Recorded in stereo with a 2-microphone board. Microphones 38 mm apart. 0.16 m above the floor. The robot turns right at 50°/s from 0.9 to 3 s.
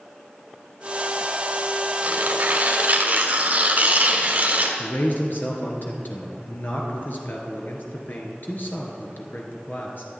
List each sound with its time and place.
2.0 s tearing paper: 120° right, 2.0 m; by 4.7 s 70° right, 2.0 m
4.8 s a man speaking: 60° left (ahead or behind), 2 m